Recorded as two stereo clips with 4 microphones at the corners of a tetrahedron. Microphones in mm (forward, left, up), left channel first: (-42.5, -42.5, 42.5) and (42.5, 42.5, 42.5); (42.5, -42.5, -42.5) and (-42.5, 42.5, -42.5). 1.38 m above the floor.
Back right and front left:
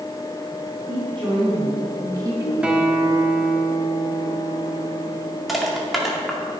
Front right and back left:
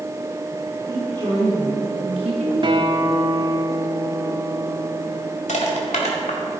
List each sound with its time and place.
0.9 s a woman speaking: 85° left, 3.5 m; by 2.5 s 110° left, 1.9 m
2.6 s a guitar: 120° left, 1.0 m
5.5 s crushing: 45° right, 2 m